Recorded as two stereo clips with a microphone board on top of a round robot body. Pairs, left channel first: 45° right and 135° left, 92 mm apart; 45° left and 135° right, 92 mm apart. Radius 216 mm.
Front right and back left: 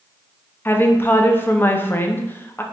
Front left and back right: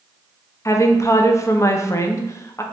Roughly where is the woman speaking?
Ahead.